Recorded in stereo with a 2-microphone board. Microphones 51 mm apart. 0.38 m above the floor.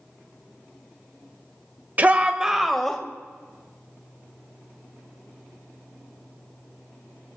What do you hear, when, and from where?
2.0 s a shout: 35° right (ahead or behind), 1.2 m; by 3.0 s 10° left (ahead or behind), 1.5 m